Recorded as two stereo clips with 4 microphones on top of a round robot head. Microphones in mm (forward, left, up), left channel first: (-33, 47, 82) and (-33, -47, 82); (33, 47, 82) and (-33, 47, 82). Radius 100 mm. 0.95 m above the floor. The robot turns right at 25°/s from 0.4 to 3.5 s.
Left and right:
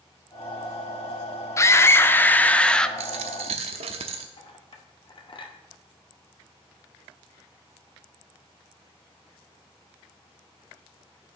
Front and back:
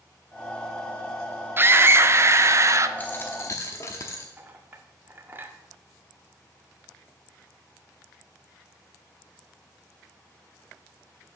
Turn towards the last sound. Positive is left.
turn(degrees=120)